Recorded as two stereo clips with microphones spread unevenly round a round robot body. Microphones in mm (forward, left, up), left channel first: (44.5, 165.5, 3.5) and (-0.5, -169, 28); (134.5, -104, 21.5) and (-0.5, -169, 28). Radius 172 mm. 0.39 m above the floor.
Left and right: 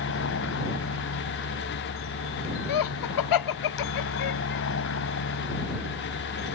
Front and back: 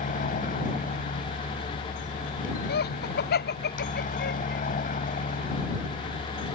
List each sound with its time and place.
0.0 s a helicopter: 35° left
2.7 s laughter: 55° left